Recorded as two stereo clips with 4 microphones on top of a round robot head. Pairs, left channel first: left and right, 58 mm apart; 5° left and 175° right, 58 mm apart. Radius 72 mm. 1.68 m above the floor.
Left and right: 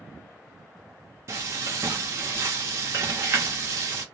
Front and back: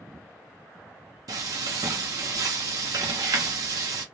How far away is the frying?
About 0.7 m.